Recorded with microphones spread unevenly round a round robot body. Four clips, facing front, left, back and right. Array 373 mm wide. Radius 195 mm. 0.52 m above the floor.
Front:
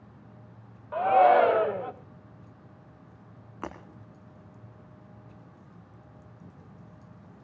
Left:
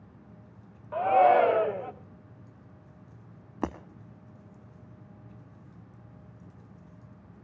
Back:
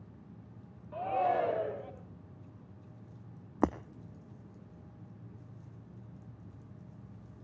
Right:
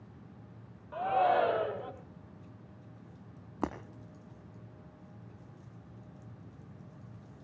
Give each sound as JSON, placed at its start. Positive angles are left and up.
{"t": 0.9, "sound": "a shout", "azimuth_deg": 30, "distance_m": 2.5}
{"t": 3.6, "sound": "breaking glass", "azimuth_deg": 165, "distance_m": 0.5}